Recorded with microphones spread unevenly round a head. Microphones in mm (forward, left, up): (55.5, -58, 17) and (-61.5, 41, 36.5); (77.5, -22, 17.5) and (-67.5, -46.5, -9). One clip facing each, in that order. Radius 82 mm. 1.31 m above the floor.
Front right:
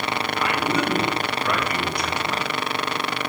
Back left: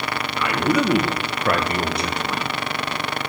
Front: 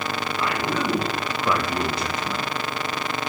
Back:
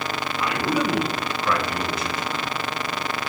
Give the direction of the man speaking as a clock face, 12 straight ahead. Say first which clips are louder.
Back left 5 dB, back 3 dB; 8 o'clock.